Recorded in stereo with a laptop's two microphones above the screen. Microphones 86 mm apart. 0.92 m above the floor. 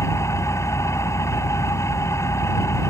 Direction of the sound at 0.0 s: 35° left (ahead or behind).